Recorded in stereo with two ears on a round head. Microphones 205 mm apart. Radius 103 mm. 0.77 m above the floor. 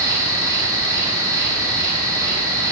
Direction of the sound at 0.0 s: 15° right (ahead or behind).